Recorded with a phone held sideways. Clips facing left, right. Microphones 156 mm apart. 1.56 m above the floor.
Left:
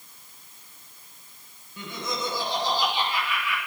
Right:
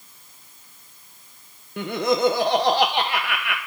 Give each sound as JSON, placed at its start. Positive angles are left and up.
{"t": 1.8, "sound": "laughter", "side_deg": -70, "distance_m": 0.9}